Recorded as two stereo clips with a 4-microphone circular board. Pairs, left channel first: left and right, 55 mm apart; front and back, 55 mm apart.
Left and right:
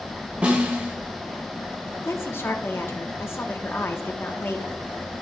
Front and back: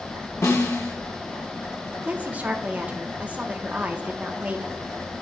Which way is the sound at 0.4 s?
20° right.